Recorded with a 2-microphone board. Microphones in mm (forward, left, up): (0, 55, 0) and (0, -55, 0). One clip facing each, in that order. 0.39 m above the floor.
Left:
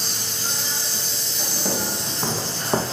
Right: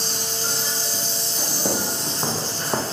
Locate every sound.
0.0 s an insect: 45° right (ahead or behind), 1.9 m
1.6 s footsteps: 20° right (ahead or behind), 1.4 m; by 2.8 s 15° left (ahead or behind), 0.7 m